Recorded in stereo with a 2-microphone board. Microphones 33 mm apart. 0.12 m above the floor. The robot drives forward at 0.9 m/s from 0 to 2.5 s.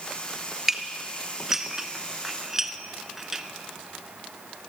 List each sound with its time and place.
0.7 s dishes clattering: 10° right (ahead or behind), 1.5 m; by 3.4 s 15° right (ahead or behind), 1.0 m